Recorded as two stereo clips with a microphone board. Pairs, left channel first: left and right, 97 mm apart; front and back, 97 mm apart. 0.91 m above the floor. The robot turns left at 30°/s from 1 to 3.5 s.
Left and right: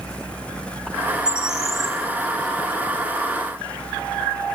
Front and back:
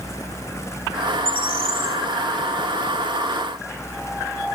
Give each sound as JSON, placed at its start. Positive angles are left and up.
{"t": 1.2, "sound": "a bird", "azimuth_deg": -165, "distance_m": 1.9}